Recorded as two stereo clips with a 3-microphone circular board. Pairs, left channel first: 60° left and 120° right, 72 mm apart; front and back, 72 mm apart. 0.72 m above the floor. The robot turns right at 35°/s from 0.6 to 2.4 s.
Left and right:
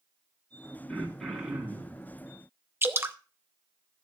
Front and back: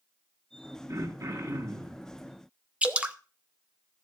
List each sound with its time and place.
0.9 s throat clearing: 135° left, 3 m; by 2.0 s 175° left, 3 m
2.8 s dripping: 120° right, 0.7 m